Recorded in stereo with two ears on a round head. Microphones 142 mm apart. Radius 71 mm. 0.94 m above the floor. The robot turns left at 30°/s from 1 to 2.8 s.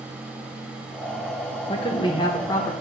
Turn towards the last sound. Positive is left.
turn(degrees=20)